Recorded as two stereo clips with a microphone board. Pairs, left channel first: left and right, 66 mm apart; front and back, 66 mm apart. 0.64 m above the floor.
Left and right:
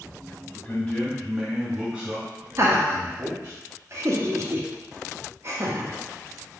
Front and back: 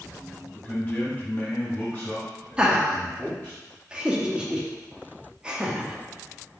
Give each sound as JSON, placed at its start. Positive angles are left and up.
{"t": 0.6, "sound": "a man speaking", "azimuth_deg": 50, "distance_m": 1.1}
{"t": 2.6, "sound": "laughter", "azimuth_deg": -110, "distance_m": 0.7}